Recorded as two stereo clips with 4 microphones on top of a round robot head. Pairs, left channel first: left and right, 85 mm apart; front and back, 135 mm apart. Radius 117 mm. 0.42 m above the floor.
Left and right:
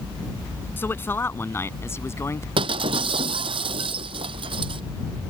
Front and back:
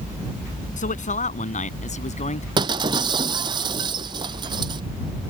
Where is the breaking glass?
120° right.